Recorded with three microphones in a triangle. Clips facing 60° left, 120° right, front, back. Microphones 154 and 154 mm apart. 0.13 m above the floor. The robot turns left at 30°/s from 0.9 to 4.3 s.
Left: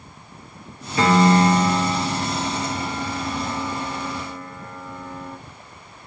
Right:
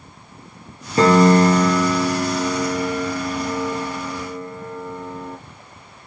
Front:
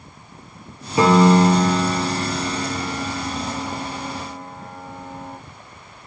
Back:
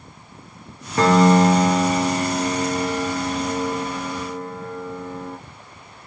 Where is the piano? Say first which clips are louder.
Right 3 dB, front 1 dB; 75° right, 0.9 m; by 5.4 s 175° right, 0.9 m.